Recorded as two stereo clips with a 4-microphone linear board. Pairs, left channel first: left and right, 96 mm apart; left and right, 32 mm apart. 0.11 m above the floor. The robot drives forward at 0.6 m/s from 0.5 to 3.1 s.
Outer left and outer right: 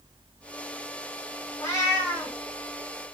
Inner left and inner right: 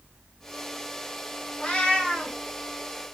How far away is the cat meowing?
About 0.8 m.